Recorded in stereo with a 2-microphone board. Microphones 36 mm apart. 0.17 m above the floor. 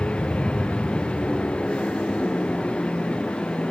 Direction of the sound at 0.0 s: 35° left (ahead or behind).